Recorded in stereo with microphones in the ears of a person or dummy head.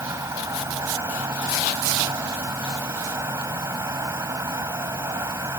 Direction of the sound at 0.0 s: 15° right (ahead or behind).